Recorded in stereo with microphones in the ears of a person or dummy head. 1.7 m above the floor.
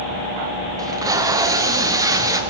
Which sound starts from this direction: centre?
Tape being pulled, at 0.8 s.